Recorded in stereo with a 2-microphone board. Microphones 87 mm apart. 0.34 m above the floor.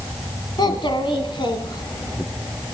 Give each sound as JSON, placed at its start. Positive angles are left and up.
{"t": 0.6, "sound": "a child speaking", "side_deg": 60, "distance_m": 1.4}